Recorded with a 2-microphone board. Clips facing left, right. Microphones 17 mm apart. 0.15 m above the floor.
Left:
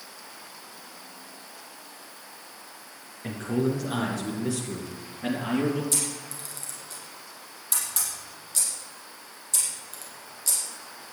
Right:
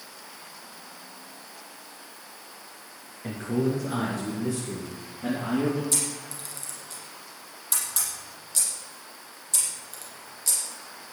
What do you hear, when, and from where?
3.2 s a man speaking: 20° left (ahead or behind), 2.5 m; by 5.8 s 55° left (ahead or behind), 3 m
5.9 s a camera shutter: centre (ahead or behind), 6 m